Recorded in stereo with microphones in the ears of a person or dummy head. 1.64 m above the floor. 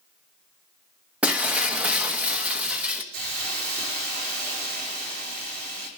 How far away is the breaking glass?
About 1.2 m.